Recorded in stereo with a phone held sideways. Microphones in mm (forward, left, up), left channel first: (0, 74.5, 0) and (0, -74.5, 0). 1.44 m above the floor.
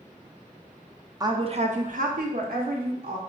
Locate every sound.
1.2 s a woman speaking: 25° right (ahead or behind), 0.6 m; by 3.2 s 85° right, 1.3 m